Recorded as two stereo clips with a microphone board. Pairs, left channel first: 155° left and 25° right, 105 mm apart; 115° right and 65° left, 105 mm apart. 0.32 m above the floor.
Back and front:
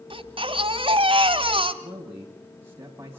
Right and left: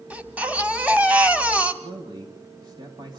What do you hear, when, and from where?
0.1 s a baby crying: 10° right, 1.6 m
1.8 s a man speaking: 40° left, 2.5 m